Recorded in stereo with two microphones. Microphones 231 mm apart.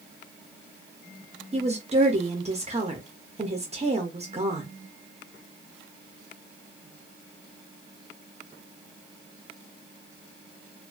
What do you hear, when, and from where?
1.5 s a woman speaking: 30° right (ahead or behind), 0.6 m